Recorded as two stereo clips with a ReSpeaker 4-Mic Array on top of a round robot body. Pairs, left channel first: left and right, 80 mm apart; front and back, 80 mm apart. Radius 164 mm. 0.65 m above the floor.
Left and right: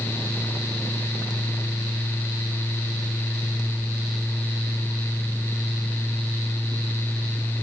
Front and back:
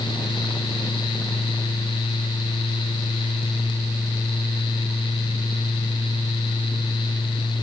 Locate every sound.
Only background noise.